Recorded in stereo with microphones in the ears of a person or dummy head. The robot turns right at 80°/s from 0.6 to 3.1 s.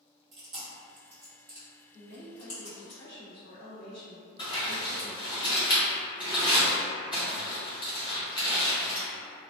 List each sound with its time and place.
0.3 s chewing: 50° right (ahead or behind), 1.0 m; by 2.9 s 50° left (ahead or behind), 1.0 m
1.9 s a woman speaking: 40° left, 1.9 m; by 5.4 s 135° left, 1.9 m
4.4 s crumpling: 20° left (ahead or behind), 0.8 m